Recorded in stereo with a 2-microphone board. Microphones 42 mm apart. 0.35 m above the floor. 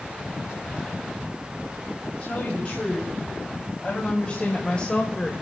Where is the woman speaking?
40° left (ahead or behind), 4 m; by 5.3 s 25° left (ahead or behind), 1.4 m.